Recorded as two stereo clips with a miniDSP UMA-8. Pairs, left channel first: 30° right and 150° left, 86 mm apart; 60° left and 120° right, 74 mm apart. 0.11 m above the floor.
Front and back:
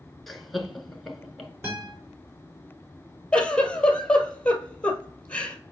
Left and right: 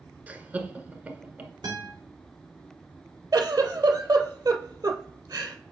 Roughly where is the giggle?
Right.